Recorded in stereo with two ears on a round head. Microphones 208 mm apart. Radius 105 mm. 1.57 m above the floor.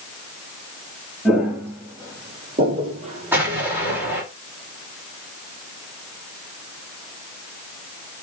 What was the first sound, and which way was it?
Footsteps, 5° right (ahead or behind).